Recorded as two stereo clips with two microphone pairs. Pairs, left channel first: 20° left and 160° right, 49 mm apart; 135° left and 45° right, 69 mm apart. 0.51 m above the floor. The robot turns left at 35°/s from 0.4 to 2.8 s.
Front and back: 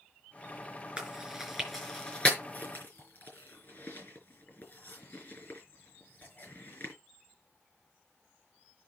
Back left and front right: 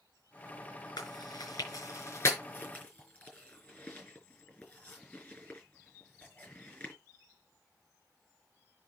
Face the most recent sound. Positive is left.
turn(degrees=65)